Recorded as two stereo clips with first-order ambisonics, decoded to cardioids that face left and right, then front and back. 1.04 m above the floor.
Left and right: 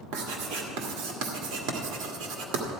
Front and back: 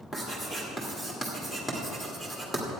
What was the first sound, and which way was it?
Writing, 80° right.